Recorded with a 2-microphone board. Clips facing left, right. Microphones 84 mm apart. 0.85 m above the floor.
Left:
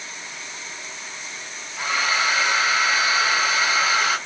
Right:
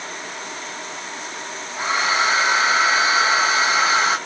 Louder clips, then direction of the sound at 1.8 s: Right 3 dB; 25° right (ahead or behind).